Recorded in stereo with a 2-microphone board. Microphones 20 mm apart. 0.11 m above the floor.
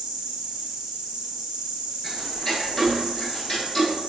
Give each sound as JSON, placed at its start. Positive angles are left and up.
{"t": 0.0, "sound": "an insect", "side_deg": -60, "distance_m": 0.8}
{"t": 2.0, "sound": "ticking", "side_deg": 15, "distance_m": 0.8}